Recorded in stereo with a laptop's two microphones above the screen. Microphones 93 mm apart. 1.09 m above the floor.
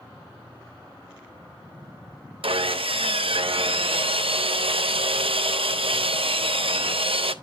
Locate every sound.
2.4 s sawing: 75° right (ahead or behind), 0.5 m